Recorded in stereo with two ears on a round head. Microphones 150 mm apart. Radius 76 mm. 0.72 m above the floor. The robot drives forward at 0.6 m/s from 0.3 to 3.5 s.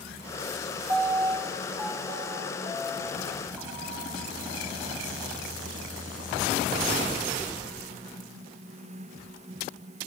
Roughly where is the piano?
Centre.